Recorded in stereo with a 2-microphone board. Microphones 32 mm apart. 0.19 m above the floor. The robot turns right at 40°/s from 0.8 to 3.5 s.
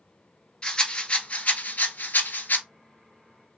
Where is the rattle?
25° left (ahead or behind), 0.6 m; by 2.6 s 75° left (ahead or behind), 0.6 m.